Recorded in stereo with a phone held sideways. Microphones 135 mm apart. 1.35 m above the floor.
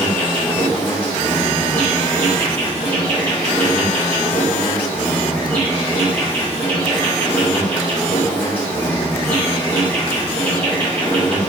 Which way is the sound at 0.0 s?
15° left (ahead or behind).